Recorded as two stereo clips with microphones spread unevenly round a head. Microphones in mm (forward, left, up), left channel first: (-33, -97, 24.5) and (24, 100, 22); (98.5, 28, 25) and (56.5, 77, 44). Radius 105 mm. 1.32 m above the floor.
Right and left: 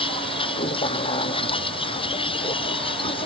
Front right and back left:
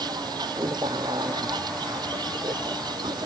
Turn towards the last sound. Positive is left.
turn(degrees=-170)